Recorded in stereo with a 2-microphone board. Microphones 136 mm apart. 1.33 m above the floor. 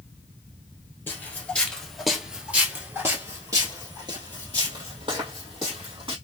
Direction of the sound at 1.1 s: 15° left (ahead or behind).